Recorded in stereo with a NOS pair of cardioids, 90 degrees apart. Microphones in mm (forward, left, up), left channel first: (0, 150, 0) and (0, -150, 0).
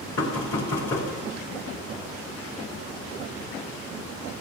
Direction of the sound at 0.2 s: 50° left.